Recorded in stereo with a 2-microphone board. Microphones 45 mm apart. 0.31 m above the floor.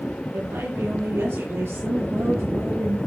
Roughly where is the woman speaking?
Right.